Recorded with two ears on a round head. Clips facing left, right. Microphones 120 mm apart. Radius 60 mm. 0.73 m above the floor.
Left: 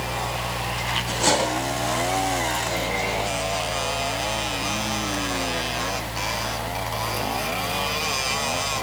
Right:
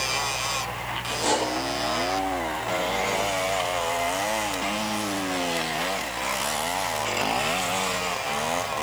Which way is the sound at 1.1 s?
80° left.